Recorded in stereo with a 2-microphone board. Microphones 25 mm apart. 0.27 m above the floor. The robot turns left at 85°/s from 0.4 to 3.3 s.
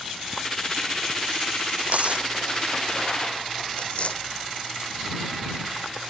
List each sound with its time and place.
1.8 s tearing paper: 80° right; by 4.8 s 45° left (ahead or behind)